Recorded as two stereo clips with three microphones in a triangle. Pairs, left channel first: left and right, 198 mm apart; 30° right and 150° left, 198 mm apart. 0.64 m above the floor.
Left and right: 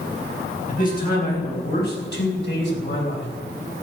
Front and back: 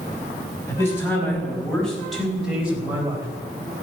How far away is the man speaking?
About 4.5 m.